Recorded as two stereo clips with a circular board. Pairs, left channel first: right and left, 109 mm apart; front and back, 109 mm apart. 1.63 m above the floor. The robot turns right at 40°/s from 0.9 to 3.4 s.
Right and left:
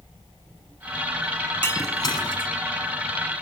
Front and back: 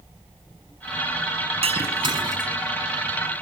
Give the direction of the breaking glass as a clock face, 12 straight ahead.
5 o'clock.